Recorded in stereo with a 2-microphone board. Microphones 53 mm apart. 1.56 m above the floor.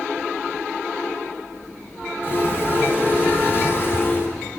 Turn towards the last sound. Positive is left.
turn(degrees=45)  # may be behind; listen again after turning